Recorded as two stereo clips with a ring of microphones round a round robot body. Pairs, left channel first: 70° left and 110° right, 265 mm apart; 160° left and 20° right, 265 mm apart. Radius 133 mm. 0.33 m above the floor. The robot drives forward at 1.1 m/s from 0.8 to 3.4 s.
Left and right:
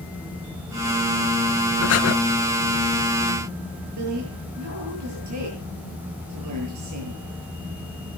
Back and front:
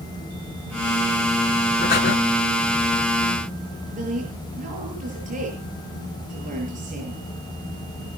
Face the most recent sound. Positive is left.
turn(degrees=-85)